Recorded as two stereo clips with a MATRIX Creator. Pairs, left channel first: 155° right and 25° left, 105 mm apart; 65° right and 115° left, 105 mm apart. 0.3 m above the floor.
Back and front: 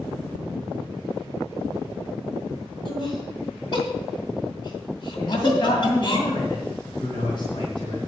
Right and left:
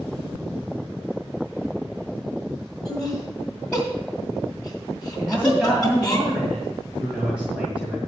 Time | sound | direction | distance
2.9 | laughter | 150° right | 2 m
5.2 | a man speaking | 170° right | 2 m